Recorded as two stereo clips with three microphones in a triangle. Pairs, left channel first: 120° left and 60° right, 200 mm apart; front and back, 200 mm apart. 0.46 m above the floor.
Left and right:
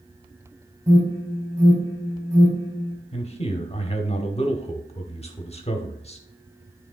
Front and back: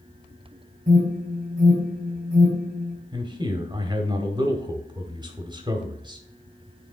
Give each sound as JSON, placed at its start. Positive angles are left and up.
{"t": 0.9, "sound": "an alarm", "azimuth_deg": -135, "distance_m": 3.0}
{"t": 3.1, "sound": "a man speaking", "azimuth_deg": 135, "distance_m": 1.1}